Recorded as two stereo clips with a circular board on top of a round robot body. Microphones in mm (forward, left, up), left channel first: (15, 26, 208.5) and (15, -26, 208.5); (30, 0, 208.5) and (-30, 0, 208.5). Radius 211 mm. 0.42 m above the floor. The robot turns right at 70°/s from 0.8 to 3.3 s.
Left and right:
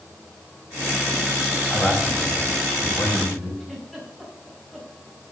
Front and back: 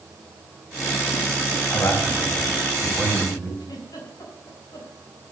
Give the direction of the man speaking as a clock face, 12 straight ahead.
1 o'clock.